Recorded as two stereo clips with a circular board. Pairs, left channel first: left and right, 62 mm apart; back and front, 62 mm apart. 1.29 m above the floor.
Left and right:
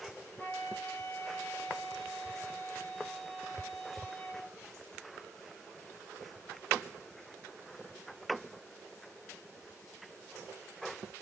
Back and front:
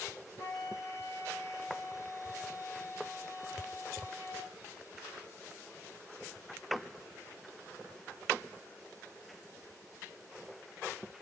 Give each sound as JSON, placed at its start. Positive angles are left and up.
{"t": 0.4, "sound": "a flute", "azimuth_deg": 150, "distance_m": 1.6}